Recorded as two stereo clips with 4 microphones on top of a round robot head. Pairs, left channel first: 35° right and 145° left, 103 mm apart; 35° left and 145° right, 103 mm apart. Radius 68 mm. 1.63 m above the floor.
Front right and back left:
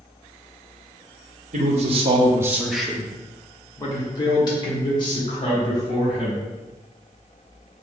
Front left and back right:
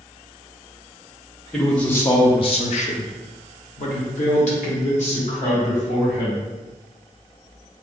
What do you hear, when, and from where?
1.5 s a man speaking: 125° left, 0.8 m; by 6.4 s 10° left, 3 m